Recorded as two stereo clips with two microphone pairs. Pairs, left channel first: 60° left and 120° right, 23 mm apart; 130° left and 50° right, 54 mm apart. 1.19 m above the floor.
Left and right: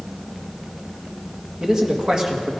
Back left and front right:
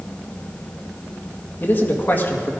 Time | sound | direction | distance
1.6 | a man speaking | 175° right | 1.9 m